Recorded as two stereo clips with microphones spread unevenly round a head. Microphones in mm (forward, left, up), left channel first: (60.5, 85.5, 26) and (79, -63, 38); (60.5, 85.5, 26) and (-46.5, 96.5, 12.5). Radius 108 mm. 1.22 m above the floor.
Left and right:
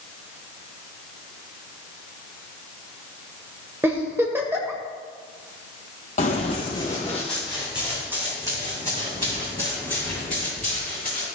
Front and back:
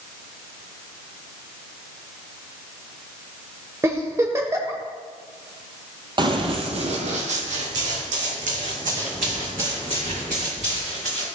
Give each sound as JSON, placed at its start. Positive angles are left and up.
{"t": 3.8, "sound": "a giggle", "azimuth_deg": -130, "distance_m": 1.0}
{"t": 6.2, "sound": "running footsteps", "azimuth_deg": 135, "distance_m": 1.6}